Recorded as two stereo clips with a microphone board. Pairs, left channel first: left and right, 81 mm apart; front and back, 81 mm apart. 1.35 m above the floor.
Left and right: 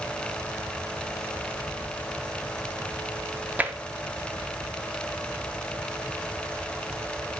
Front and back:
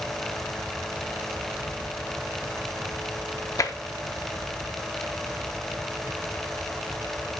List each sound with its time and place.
3.6 s tapping: 25° right, 0.5 m